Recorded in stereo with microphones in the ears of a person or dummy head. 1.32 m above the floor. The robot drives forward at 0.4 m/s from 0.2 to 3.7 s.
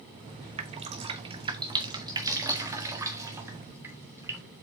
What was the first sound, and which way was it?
Dripping, 30° right (ahead or behind).